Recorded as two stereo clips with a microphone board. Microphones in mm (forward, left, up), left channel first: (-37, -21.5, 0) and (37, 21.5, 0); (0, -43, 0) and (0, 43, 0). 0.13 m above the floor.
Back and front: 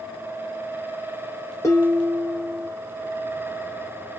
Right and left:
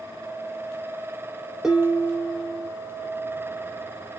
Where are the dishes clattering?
170° left, 1.1 m.